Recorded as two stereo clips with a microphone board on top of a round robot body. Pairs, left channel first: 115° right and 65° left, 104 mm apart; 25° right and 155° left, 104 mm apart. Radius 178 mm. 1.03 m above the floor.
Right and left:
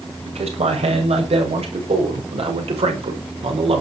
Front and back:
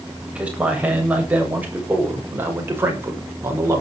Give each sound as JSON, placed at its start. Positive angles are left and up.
{"t": 0.3, "sound": "a man speaking", "azimuth_deg": 80, "distance_m": 7.5}